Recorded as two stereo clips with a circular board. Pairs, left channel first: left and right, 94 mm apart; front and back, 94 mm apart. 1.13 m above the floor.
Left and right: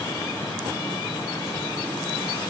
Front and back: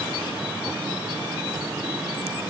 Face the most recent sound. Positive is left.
No sound to turn to.